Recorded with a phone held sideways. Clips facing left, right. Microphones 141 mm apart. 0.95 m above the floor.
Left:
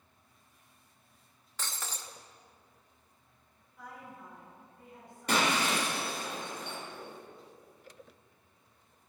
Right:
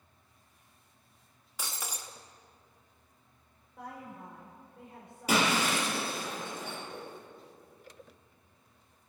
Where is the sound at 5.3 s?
5° right (ahead or behind), 4 m.